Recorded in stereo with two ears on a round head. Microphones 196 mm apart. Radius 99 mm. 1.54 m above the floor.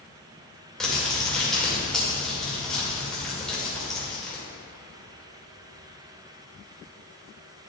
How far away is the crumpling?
About 2 m.